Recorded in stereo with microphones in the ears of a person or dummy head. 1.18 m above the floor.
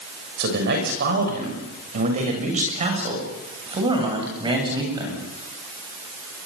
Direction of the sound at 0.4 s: 65° right (ahead or behind).